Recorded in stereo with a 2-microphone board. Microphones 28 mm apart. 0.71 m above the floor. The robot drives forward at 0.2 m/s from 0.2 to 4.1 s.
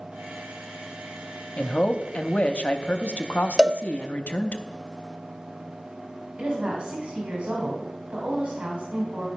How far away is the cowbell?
About 0.5 m.